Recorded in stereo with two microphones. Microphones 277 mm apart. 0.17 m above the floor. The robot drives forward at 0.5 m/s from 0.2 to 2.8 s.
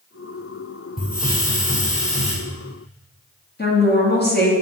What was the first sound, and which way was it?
A hiss, 30° left (ahead or behind).